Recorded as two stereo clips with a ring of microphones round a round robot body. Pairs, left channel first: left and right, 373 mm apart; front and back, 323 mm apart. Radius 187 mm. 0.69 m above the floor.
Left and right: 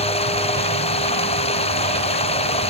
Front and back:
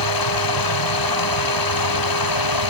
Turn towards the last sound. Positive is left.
turn(degrees=15)